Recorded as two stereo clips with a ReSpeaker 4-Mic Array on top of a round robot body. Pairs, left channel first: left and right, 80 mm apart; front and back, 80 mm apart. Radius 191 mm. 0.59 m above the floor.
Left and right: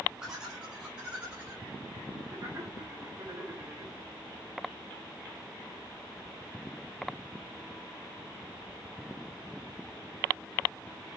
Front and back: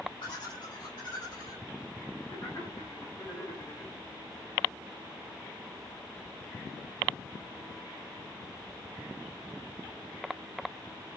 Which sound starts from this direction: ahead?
Laughter, at 0.2 s.